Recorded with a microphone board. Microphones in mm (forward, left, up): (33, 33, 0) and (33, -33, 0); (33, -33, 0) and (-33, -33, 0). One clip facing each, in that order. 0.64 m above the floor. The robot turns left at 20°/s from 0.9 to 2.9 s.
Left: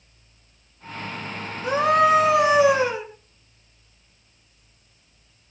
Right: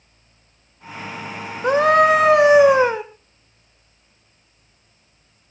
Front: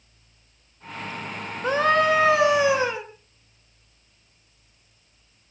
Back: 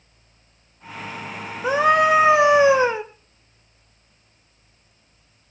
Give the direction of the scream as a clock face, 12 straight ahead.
3 o'clock.